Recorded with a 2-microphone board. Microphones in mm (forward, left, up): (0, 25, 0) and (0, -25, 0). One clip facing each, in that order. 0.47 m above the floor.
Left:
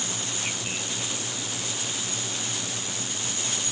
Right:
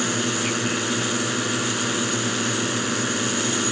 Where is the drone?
70° right (ahead or behind).